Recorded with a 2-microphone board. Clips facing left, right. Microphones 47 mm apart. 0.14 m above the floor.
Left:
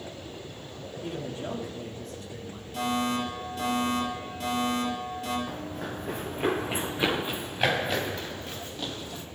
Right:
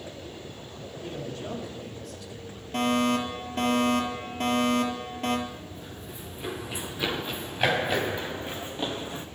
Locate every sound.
1.0 s a man speaking: 20° left (ahead or behind), 6 m; by 2.6 s 40° left (ahead or behind), 4.5 m
2.7 s a fire alarm: 50° right (ahead or behind), 5.5 m
5.5 s running footsteps: 75° left (ahead or behind), 1.2 m; by 9.3 s 25° right (ahead or behind), 2 m